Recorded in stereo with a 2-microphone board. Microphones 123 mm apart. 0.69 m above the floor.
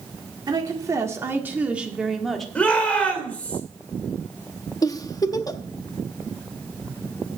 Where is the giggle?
30° left (ahead or behind), 0.7 m.